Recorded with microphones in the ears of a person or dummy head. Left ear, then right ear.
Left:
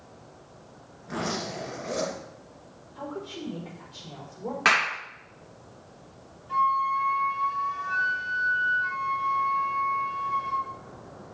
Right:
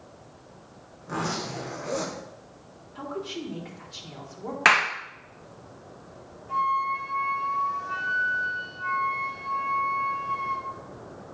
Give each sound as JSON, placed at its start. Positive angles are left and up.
{"t": 1.0, "sound": "a zipper", "side_deg": -50, "distance_m": 5.0}
{"t": 3.0, "sound": "a woman speaking", "side_deg": -65, "distance_m": 4.0}
{"t": 4.7, "sound": "a clap", "side_deg": -20, "distance_m": 0.9}
{"t": 6.5, "sound": "a flute", "side_deg": -35, "distance_m": 4.0}